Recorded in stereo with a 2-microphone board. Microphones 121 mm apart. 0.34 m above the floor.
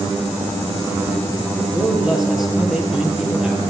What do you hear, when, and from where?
1.7 s a man speaking: 5° right (ahead or behind), 7.5 m